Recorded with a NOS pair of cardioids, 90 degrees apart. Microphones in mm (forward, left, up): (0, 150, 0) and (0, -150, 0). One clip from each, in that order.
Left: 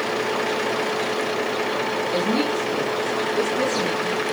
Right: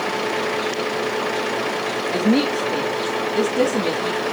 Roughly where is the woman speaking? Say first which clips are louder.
Right 4 dB; ahead right.